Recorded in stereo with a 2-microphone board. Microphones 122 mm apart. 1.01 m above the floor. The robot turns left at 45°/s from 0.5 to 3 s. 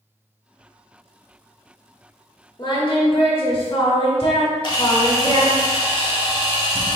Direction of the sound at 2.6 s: 35° left (ahead or behind).